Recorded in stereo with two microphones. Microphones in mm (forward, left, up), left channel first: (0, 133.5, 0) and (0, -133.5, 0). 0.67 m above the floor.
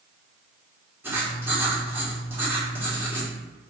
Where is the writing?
10° right (ahead or behind), 1.6 m.